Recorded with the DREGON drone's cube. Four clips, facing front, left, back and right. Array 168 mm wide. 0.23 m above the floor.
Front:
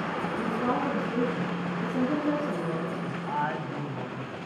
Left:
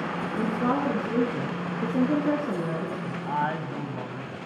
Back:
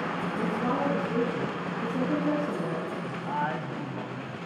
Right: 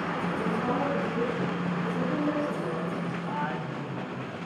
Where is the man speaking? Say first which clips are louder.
Left 4 dB, even; 85° left, 1.7 m.